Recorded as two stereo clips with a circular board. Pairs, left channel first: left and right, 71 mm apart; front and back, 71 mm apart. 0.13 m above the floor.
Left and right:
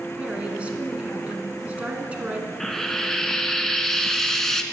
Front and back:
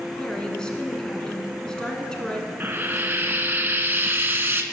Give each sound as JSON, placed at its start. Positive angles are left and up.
{"t": 0.2, "sound": "a woman speaking", "azimuth_deg": -55, "distance_m": 1.1}
{"t": 2.6, "sound": "frying", "azimuth_deg": 170, "distance_m": 0.6}